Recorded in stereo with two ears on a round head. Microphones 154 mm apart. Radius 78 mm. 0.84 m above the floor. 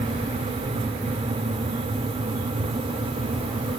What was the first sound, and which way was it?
Only background noise.